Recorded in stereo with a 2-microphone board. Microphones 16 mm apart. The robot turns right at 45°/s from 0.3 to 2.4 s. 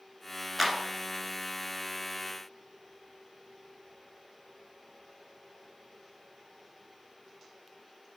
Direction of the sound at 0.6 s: 5° left (ahead or behind).